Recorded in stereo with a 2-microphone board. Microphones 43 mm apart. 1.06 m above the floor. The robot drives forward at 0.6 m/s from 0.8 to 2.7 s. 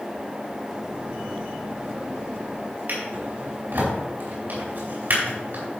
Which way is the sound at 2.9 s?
50° right (ahead or behind).